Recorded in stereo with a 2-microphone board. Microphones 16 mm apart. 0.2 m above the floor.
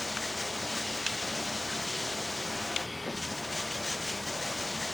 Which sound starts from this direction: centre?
Running water, at 0.0 s.